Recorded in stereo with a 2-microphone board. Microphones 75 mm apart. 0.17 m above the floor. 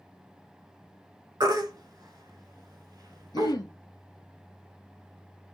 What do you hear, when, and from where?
1.4 s a baby crying: 60° right (ahead or behind), 1.0 m
3.3 s throat clearing: 65° left (ahead or behind), 0.6 m